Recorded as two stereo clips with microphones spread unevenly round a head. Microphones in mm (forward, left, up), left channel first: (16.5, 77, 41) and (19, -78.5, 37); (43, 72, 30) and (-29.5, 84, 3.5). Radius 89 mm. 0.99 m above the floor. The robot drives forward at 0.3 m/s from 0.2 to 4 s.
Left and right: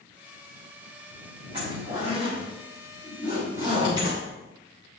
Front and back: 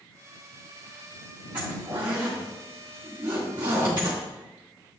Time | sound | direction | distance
1.5 | a zipper | 150° right | 4 m